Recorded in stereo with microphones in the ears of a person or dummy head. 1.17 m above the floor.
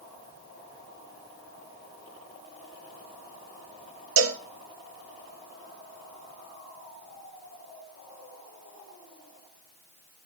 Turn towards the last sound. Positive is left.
turn(degrees=-80)